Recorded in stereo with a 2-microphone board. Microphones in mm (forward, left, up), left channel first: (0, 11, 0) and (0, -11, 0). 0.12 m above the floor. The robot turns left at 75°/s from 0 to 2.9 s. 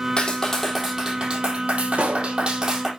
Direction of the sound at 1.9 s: 90° right.